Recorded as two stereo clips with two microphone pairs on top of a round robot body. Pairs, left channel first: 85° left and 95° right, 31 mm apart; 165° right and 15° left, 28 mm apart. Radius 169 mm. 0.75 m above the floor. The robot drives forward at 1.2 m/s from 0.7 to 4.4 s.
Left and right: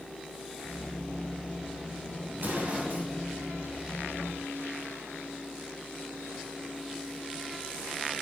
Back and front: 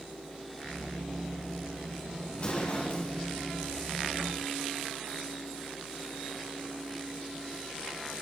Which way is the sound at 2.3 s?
115° right.